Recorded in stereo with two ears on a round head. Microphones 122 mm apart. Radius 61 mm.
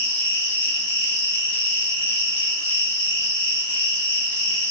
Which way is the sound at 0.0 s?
40° left (ahead or behind).